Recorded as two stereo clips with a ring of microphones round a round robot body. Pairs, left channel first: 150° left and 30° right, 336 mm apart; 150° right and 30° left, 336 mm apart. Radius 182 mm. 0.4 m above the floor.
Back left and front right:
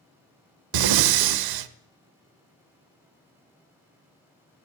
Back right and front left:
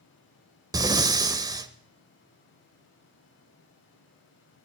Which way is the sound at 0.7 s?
50° right.